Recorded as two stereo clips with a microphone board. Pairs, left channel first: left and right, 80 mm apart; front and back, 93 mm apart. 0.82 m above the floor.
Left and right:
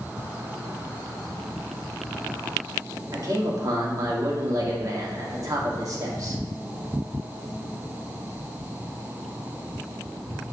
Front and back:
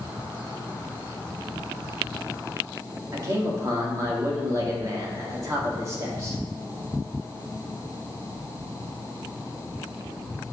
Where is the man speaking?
130° right, 1.6 m.